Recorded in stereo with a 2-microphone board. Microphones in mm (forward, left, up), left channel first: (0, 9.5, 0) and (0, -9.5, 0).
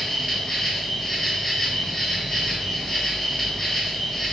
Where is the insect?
20° left (ahead or behind), 5 m.